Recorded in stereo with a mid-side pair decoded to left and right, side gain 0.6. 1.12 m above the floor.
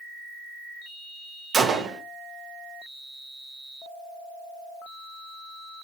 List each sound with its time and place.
1.5 s a gunshot: 40° right, 0.8 m